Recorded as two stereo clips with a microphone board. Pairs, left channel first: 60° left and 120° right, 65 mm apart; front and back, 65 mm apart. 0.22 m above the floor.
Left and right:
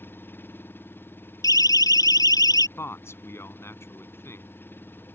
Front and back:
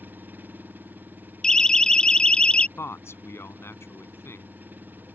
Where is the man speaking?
30° left.